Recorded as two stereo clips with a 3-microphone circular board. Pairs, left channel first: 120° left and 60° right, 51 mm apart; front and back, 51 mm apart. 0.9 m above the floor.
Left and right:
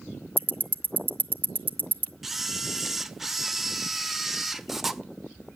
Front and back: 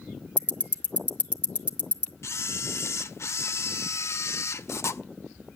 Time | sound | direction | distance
0.4 | ticking | 110° right | 0.6 m
2.2 | a camera shutter | 25° left | 0.6 m